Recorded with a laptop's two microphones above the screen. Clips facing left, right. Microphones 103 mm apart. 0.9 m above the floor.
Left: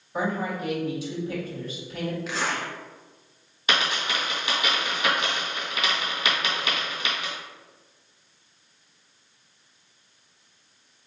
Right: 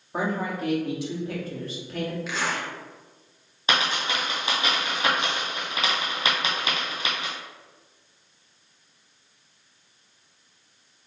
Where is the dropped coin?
30° right (ahead or behind), 1.7 m.